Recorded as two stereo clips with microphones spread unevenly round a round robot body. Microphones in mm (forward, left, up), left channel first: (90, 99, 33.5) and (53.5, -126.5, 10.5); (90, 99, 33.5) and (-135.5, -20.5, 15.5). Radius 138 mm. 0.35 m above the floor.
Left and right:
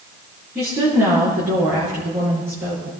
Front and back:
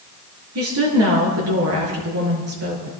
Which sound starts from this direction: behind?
A woman speaking, at 0.6 s.